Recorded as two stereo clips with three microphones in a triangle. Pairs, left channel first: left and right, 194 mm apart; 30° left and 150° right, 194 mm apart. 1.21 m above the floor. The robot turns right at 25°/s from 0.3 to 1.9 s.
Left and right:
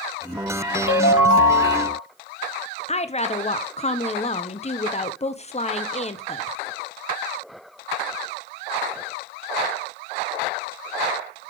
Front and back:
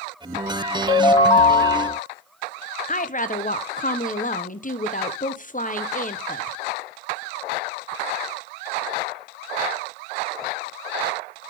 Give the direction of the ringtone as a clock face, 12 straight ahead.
9 o'clock.